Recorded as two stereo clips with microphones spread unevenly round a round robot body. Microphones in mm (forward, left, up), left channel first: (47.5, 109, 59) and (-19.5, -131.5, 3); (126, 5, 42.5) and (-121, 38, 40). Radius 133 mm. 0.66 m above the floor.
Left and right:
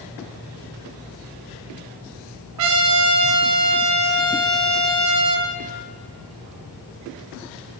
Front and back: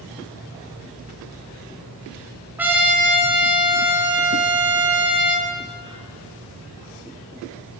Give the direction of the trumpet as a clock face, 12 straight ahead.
3 o'clock.